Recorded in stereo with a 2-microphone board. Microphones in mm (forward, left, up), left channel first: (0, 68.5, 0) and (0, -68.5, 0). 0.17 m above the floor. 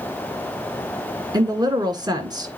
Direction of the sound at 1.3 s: 30° right (ahead or behind).